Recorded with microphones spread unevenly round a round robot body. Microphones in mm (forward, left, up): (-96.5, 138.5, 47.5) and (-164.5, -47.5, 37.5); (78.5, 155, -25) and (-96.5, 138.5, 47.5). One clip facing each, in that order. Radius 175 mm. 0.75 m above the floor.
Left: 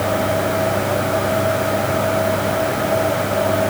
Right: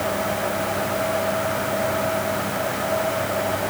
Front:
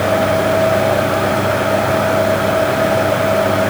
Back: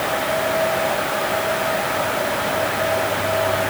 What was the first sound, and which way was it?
Only background noise.